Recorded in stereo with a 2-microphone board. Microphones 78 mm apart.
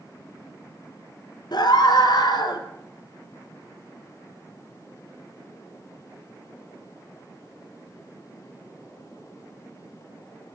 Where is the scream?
60° left (ahead or behind), 2.5 m.